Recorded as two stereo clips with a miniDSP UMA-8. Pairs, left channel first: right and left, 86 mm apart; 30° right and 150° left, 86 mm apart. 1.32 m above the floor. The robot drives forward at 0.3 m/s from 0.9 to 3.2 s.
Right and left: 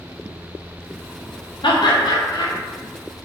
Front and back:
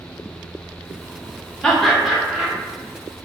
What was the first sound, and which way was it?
Laughter, 115° right.